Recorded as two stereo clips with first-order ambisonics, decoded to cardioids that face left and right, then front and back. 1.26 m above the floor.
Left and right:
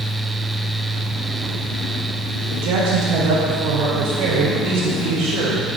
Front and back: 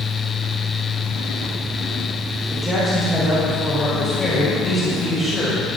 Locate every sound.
2.5 s a woman speaking: 100° right, 5 m; by 5.8 s 85° right, 6 m